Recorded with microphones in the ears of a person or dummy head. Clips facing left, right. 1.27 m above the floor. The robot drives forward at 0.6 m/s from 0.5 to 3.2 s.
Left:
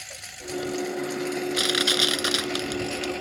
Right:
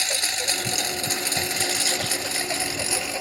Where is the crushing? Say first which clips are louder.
Left 3 dB; 85° left.